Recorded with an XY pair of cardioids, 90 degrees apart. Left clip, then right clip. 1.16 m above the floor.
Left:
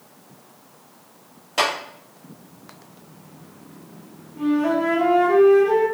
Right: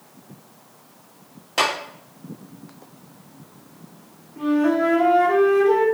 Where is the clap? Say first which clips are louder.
Even; 20° right, 1.3 m.